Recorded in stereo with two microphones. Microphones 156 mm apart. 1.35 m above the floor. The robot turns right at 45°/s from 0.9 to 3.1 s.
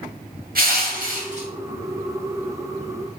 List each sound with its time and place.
0.6 s crushing: 70° right (ahead or behind), 0.7 m; by 1.5 s 45° right (ahead or behind), 0.7 m